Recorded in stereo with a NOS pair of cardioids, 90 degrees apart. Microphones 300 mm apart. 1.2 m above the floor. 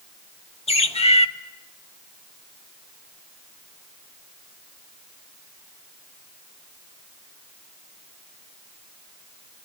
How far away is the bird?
About 1.6 m.